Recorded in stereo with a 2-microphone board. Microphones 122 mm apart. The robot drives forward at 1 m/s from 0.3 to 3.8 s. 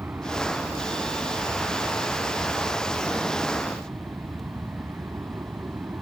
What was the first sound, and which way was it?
An aircraft, 15° right (ahead or behind).